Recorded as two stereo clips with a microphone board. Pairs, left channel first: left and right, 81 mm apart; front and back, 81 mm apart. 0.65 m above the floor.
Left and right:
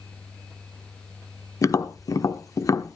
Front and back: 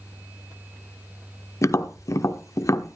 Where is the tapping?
45° left, 0.9 m.